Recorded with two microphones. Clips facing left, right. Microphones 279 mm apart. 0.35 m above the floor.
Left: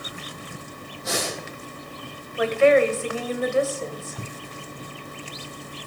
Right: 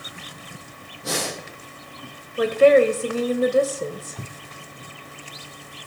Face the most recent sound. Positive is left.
turn(degrees=-40)  # may be behind; listen again after turning